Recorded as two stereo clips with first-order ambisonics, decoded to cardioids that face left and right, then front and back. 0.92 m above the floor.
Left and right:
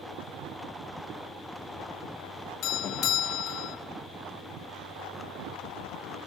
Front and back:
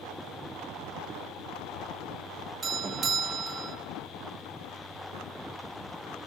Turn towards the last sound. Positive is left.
turn(degrees=125)